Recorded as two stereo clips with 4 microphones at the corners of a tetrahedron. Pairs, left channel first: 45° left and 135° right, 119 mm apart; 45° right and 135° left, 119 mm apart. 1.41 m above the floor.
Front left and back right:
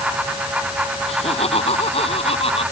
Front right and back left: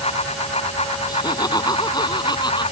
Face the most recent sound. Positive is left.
turn(degrees=5)